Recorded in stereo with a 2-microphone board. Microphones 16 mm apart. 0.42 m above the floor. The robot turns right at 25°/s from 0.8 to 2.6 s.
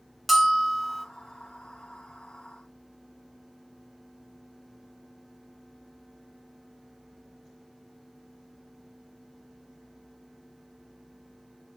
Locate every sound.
0.3 s a bell: centre (ahead or behind), 1.1 m; by 1.1 s 5° right (ahead or behind), 1.1 m